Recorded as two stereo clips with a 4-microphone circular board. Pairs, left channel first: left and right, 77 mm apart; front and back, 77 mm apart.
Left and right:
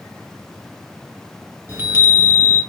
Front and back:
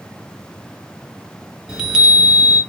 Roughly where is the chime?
Right.